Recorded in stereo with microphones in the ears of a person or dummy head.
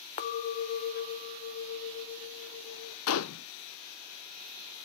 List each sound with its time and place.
0.2 s a clink: 40° left (ahead or behind), 0.7 m
3.1 s a gunshot: 90° left, 0.5 m